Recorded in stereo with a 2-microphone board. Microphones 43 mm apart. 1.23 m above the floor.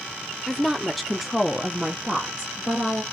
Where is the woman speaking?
10° left (ahead or behind), 0.6 m; by 3.0 s 10° right (ahead or behind), 1.2 m.